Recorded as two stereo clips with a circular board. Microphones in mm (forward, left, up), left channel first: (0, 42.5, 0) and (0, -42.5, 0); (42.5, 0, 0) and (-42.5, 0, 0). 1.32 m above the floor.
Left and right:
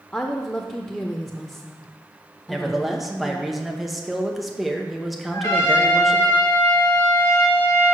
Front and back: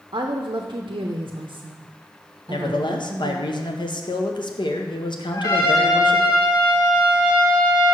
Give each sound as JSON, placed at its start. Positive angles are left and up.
{"t": 0.1, "sound": "a woman speaking", "azimuth_deg": 160, "distance_m": 0.5}
{"t": 2.5, "sound": "a man speaking", "azimuth_deg": 0, "distance_m": 0.8}
{"t": 5.3, "sound": "a trumpet", "azimuth_deg": 35, "distance_m": 2.5}